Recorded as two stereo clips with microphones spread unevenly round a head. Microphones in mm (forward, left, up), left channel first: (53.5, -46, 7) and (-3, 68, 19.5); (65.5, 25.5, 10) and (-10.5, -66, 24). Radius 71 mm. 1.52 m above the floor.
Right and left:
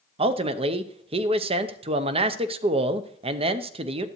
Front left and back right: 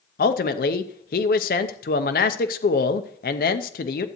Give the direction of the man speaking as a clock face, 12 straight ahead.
10 o'clock.